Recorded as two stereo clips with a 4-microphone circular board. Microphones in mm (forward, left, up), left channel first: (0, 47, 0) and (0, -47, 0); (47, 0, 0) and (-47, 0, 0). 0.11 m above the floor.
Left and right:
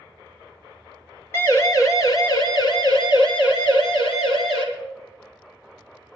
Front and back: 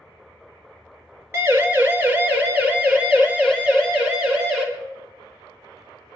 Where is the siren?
135° left, 2.5 m; by 4.6 s 100° left, 5 m.